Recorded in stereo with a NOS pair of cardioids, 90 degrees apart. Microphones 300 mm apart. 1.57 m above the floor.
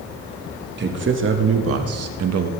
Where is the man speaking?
35° right, 2 m; by 2.5 s 70° right, 1.6 m.